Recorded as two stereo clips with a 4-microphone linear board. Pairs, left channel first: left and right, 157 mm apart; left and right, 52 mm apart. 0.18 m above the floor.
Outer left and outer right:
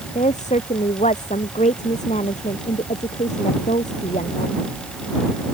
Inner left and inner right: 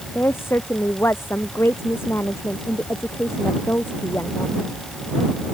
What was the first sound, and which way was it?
A woman speaking, 45° left (ahead or behind).